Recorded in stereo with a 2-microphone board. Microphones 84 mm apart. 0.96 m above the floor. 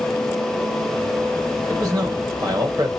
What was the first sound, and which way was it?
A man speaking, 45° right (ahead or behind).